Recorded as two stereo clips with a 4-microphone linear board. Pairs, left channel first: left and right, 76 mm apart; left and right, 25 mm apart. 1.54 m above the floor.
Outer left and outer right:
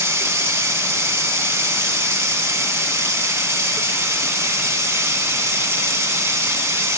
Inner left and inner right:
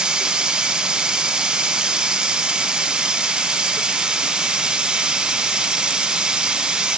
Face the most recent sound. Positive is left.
turn(degrees=-35)  # may be behind; listen again after turning